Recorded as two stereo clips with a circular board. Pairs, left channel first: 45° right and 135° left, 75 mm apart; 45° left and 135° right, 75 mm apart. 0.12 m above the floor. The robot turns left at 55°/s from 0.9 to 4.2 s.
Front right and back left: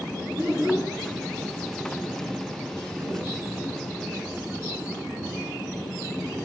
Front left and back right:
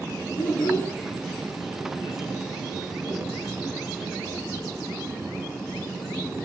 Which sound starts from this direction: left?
A child speaking, at 0.4 s.